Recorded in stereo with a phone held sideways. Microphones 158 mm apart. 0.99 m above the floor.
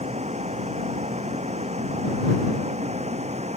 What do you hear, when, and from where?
0.0 s a vehicle: 45° right (ahead or behind)